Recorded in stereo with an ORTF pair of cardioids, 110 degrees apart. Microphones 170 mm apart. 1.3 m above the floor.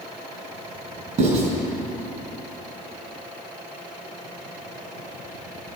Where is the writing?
45° right, 4 m.